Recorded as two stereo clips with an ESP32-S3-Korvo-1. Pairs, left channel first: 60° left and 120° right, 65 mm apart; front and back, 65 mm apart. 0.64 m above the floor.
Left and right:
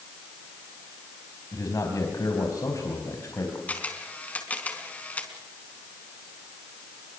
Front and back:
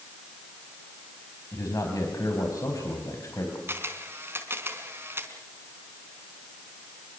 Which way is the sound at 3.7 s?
130° left.